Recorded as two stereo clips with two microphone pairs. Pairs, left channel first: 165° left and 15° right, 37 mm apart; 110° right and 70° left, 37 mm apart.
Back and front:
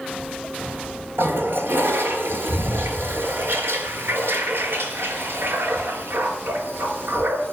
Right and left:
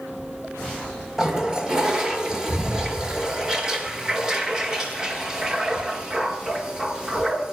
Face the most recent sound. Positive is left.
turn(degrees=0)